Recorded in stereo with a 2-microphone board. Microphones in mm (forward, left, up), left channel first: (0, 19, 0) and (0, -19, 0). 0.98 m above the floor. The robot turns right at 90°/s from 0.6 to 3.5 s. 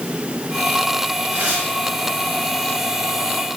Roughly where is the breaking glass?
I don't hear breaking glass.